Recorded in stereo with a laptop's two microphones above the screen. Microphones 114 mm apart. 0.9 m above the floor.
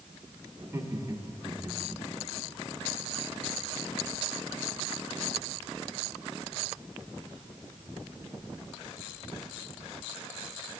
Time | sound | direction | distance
0.6 | laughter | 25° right (ahead or behind) | 2 m